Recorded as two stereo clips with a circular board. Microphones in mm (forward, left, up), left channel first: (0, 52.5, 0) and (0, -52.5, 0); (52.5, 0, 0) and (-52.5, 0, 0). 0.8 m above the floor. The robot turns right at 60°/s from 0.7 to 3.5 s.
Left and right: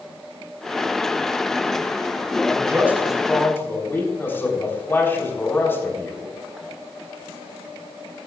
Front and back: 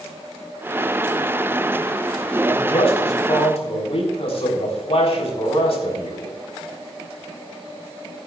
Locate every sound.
2.5 s a man speaking: 40° right, 3.5 m; by 6.3 s 20° left, 3.5 m